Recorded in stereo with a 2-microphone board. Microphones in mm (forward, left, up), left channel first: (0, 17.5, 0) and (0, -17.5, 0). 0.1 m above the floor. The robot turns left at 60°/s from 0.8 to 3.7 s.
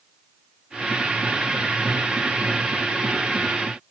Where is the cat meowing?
No cat meowing in this recording.